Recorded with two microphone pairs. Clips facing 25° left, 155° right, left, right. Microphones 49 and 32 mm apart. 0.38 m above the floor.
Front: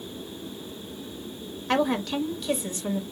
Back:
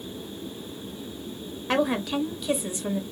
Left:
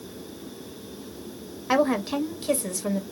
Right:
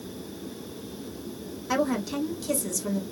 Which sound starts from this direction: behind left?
A woman speaking, at 1.7 s.